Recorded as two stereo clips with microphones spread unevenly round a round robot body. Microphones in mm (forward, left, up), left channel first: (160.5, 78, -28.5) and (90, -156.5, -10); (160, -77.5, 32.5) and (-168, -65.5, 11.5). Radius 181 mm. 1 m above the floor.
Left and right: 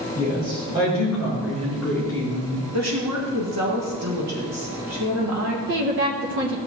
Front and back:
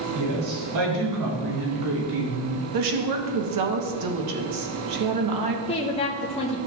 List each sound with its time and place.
0.1 s a woman speaking: 175° left, 3.5 m; by 2.6 s 145° left, 2.5 m
2.7 s a woman speaking: 155° right, 1.1 m
5.7 s a woman speaking: 75° right, 0.8 m